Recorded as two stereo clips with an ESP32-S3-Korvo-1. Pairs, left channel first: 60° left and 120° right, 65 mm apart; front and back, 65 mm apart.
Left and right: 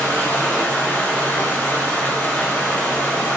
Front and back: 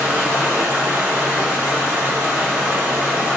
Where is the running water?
120° left, 3 m.